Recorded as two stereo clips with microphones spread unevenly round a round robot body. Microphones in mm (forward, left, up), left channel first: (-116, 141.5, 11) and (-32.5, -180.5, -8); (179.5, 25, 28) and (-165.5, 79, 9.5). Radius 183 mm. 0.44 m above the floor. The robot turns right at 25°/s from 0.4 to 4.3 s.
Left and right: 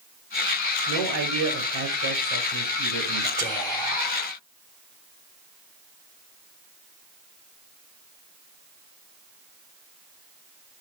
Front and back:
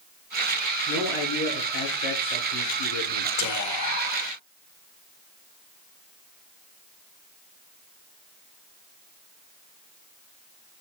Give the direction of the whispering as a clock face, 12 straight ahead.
11 o'clock.